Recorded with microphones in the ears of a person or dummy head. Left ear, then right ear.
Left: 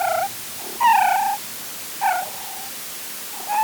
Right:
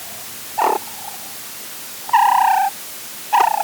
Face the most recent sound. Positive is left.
No sound to turn to.